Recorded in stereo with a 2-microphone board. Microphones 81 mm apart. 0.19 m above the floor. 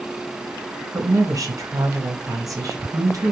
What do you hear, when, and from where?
0.9 s a woman speaking: 45° right (ahead or behind), 1.5 m